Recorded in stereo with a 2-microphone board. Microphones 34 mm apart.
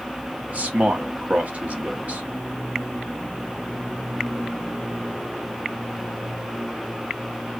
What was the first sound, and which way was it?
A man speaking, 50° right (ahead or behind).